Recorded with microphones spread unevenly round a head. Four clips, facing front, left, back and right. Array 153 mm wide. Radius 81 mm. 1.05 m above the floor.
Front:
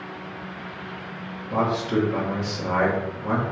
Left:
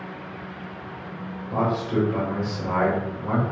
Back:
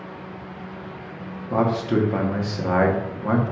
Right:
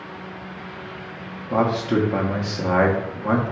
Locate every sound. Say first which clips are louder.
1.5 s a man speaking: right 4 dB, back 2 dB; 115° right, 0.9 m